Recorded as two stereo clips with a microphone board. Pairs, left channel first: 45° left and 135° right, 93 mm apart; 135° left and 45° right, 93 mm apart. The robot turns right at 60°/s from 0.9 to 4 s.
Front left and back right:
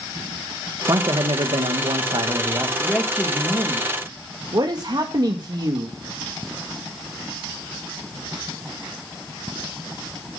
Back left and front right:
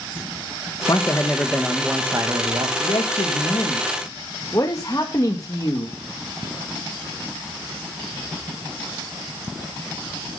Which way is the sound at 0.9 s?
175° left.